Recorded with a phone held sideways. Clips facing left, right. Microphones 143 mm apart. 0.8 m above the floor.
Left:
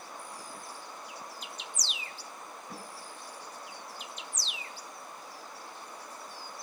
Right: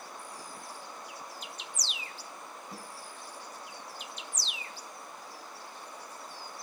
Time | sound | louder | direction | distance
2.7 | a snare drum | left 2 dB | 70° left (ahead or behind) | 6.5 m